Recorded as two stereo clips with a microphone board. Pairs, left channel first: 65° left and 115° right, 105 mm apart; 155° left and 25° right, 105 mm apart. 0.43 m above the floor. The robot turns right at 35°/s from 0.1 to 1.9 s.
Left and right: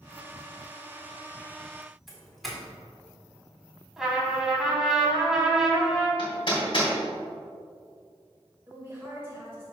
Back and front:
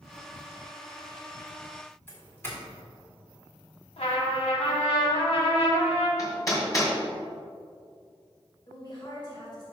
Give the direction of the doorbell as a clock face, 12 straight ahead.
7 o'clock.